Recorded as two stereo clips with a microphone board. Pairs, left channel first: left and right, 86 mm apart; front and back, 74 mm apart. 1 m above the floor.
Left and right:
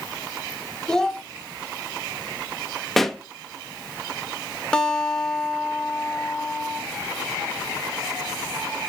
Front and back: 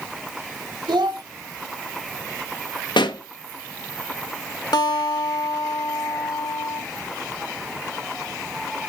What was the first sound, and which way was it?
A child speaking, 170° left.